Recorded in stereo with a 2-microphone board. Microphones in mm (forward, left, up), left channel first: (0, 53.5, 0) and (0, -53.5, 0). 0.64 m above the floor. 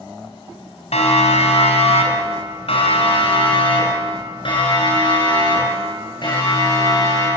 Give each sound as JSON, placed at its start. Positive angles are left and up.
{"t": 0.9, "sound": "a siren", "side_deg": 80, "distance_m": 4.0}